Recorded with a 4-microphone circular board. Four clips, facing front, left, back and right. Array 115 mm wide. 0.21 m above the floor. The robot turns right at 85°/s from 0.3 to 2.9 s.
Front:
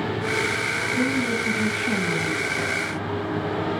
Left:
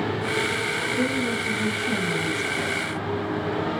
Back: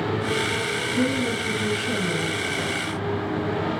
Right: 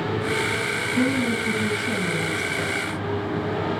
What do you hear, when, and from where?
1.0 s a woman speaking: 85° right, 2 m; by 2.9 s 75° left, 2 m